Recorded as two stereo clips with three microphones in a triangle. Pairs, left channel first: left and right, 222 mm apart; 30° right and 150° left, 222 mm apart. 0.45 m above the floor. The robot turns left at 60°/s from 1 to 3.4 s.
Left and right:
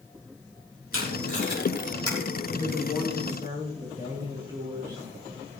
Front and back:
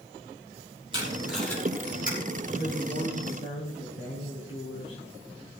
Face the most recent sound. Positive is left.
turn(degrees=-15)